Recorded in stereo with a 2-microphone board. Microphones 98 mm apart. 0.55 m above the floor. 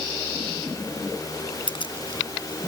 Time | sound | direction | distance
1.7 | keys jangling | 65° left (ahead or behind) | ?